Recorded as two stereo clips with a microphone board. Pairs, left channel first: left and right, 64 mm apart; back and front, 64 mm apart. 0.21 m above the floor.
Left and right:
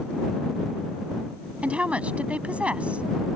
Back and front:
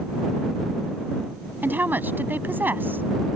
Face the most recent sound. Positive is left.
turn(degrees=-35)